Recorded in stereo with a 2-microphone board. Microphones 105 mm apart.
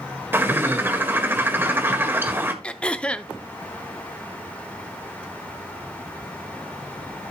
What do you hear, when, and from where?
0.3 s a bird: 20° right (ahead or behind), 1.5 m
2.6 s throat clearing: 10° left (ahead or behind), 0.6 m